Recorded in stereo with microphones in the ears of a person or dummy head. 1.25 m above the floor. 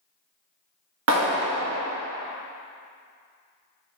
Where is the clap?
70° right (ahead or behind), 1.8 m.